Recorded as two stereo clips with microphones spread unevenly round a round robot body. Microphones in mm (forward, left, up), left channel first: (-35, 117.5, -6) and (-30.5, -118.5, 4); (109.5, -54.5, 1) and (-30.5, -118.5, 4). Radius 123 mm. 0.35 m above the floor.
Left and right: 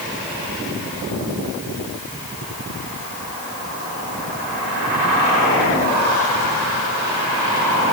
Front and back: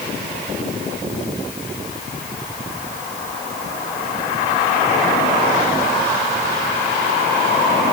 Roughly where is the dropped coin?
No dropped coin in this recording.